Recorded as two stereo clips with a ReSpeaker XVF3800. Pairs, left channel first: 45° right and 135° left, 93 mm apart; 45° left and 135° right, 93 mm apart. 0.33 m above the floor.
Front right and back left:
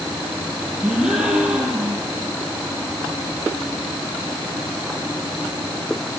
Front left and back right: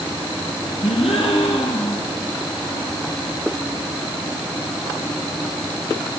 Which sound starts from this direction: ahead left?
A gasp, at 0.8 s.